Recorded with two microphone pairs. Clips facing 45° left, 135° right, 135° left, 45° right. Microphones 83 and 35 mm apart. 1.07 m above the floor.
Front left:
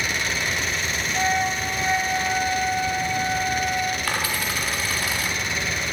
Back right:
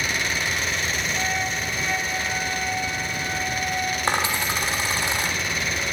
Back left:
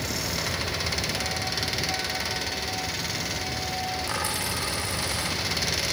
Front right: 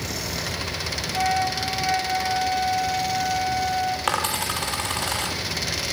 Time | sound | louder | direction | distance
1.1 | a flute | front left 4 dB, front right 7 dB | 15° right | 4 m
4.1 | a dropped coin | back right 2 dB, front right 5 dB | 70° right | 4.5 m